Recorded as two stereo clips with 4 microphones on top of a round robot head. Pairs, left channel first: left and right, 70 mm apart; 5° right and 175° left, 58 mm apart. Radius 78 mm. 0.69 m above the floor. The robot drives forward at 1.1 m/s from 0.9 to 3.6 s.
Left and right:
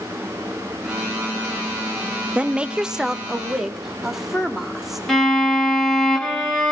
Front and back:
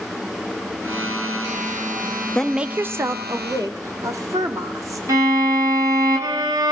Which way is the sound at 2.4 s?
50° right.